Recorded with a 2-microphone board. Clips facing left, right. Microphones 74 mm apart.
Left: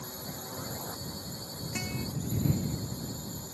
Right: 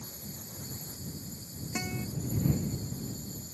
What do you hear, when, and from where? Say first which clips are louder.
0.0 s a drone: left 5 dB; 60° left (ahead or behind)
1.8 s a guitar: right 1 dB; 20° right (ahead or behind)